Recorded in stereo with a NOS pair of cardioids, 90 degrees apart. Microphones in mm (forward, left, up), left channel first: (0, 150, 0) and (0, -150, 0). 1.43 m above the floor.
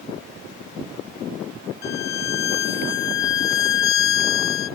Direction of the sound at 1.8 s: 65° left.